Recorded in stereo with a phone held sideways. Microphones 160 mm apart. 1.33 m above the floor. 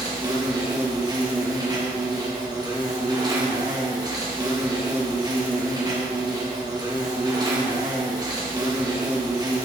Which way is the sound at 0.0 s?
25° right (ahead or behind).